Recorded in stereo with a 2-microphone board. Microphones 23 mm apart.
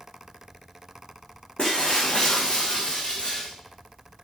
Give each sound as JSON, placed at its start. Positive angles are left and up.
{"t": 1.6, "sound": "breaking glass", "side_deg": 45, "distance_m": 5.0}